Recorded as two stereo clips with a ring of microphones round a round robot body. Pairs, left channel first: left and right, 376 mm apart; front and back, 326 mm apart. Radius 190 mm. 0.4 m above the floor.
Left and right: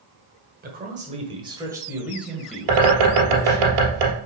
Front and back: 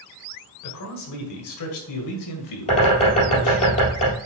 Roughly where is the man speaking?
Ahead right.